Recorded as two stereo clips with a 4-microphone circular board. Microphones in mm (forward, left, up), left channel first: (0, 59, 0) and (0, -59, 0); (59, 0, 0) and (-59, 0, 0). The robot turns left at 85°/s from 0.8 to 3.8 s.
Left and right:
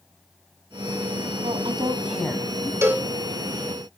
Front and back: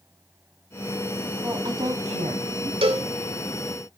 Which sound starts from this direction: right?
A woman speaking, at 1.4 s.